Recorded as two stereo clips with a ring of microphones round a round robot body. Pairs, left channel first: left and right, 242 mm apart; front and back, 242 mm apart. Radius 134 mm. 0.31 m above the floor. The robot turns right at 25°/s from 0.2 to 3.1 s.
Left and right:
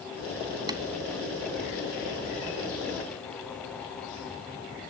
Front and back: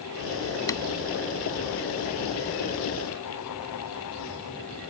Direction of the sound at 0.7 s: 50° right.